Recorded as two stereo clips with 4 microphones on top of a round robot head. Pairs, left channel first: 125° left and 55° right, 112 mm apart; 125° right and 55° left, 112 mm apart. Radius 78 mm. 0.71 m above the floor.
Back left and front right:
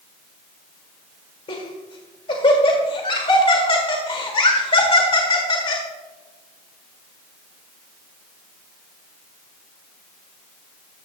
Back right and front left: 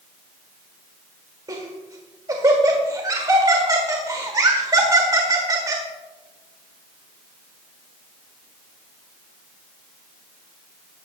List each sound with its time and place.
1.5 s laughter: 105° left, 1.8 m